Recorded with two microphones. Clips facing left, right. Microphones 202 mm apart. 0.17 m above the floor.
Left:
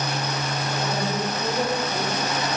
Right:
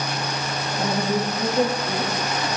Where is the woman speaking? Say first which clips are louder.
Right 5 dB; 45° right (ahead or behind), 6.5 m; by 2.5 s 35° right (ahead or behind), 7 m.